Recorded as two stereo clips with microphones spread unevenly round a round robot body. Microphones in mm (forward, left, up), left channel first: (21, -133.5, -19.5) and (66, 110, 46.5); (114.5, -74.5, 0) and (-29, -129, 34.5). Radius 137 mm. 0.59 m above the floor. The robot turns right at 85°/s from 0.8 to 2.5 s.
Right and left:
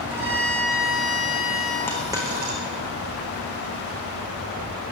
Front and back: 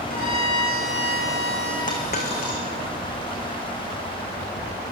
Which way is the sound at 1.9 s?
20° right.